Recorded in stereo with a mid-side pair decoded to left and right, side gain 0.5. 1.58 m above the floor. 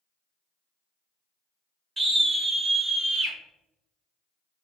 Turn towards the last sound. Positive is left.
turn(degrees=-65)